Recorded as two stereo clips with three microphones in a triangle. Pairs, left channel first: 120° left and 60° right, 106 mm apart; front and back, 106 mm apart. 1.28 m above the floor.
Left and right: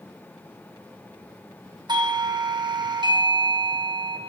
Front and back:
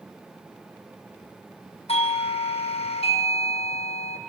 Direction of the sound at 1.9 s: 15° right.